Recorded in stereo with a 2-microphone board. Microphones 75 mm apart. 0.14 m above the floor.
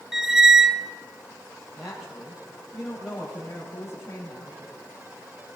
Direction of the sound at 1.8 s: 10° right (ahead or behind).